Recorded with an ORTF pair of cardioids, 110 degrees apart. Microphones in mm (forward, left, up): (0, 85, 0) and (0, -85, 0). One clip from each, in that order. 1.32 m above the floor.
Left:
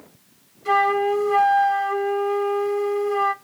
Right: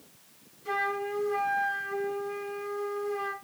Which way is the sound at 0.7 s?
45° left.